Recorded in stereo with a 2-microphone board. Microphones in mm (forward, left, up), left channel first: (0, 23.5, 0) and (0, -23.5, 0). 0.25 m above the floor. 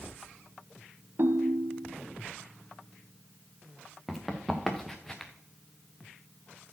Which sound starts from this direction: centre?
Running footsteps, at 4.1 s.